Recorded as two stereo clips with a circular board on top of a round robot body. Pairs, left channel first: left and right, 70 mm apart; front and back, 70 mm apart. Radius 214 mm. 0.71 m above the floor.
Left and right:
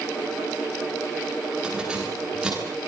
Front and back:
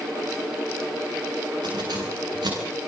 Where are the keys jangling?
170° right, 10 m.